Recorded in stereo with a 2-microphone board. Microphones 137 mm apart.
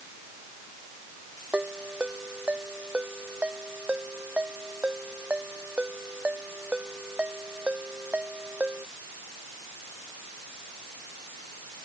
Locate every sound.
1.5 s a ringtone: 10° right (ahead or behind)